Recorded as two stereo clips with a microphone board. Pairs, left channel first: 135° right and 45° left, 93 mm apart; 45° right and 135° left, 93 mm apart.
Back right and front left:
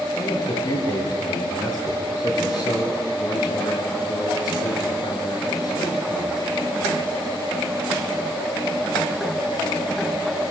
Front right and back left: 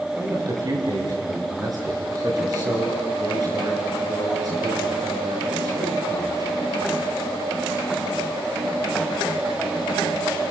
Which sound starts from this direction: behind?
A man speaking, at 0.2 s.